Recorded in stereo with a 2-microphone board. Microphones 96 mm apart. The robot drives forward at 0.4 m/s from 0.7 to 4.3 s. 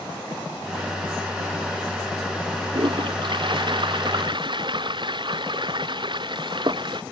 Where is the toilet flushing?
55° right (ahead or behind); by 7.0 s 50° right (ahead or behind).